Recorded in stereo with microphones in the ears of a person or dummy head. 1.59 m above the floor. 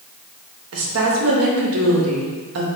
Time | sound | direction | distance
0.7 | a woman speaking | 80° right | 0.7 m